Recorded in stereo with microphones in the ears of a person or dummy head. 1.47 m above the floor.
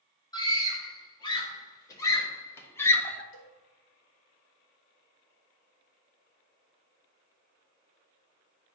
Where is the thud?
I don't hear a thud.